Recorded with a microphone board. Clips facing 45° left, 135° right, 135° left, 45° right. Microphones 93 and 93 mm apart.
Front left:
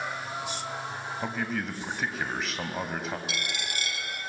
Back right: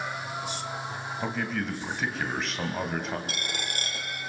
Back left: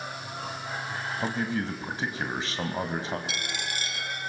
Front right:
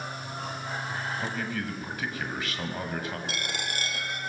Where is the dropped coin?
90° right, 3.5 m.